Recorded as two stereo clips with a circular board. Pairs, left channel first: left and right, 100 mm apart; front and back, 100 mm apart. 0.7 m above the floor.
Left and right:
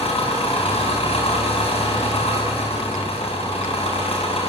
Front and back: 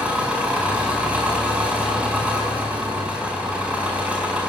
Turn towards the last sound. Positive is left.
turn(degrees=100)